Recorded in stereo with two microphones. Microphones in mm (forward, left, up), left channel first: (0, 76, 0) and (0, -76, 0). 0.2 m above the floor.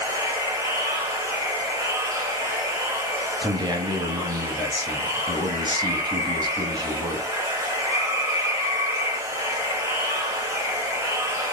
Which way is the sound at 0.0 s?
20° right (ahead or behind).